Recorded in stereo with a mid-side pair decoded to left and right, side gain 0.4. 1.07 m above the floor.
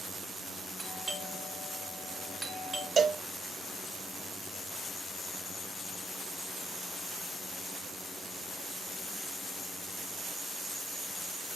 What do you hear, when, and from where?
0.8 s a doorbell: 30° right, 3.5 m
3.0 s a cowbell: 45° right, 0.7 m